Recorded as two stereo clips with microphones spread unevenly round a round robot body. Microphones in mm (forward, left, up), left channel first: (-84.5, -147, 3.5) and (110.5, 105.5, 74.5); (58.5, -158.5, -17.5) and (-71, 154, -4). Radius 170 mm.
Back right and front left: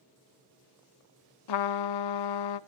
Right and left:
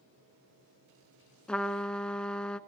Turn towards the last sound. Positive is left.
turn(degrees=-155)